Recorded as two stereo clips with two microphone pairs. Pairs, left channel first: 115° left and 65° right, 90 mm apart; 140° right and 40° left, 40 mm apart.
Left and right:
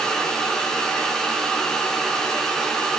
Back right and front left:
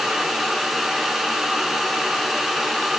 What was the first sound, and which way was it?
Only background noise.